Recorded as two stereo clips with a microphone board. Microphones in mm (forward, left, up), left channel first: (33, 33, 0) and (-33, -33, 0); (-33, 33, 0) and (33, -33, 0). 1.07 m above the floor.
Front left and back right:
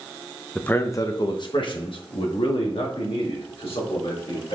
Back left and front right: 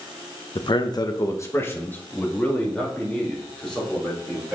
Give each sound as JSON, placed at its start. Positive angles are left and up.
{"t": 0.6, "sound": "a man speaking", "azimuth_deg": 120, "distance_m": 0.8}